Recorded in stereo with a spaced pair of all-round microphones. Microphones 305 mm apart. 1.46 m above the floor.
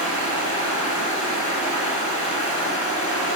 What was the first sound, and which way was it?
Running water, 70° left (ahead or behind).